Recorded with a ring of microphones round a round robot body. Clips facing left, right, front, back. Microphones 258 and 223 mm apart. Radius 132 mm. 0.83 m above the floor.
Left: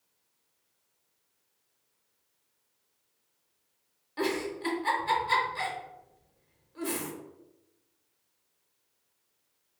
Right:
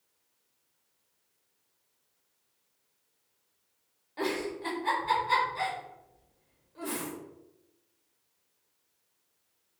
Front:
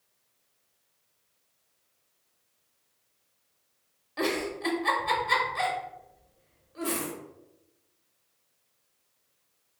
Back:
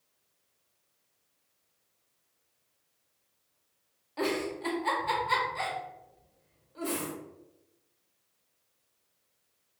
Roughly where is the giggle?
Ahead left.